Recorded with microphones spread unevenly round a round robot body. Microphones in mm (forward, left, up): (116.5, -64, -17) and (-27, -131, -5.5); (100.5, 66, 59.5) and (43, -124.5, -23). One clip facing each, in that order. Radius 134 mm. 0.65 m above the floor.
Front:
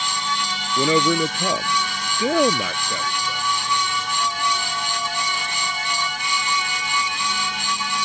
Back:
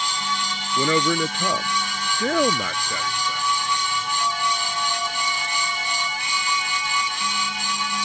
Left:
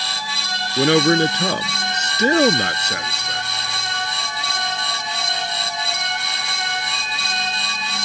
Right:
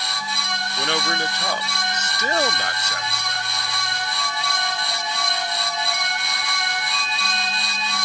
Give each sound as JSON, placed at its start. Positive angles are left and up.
{"t": 0.8, "sound": "a man speaking", "azimuth_deg": 110}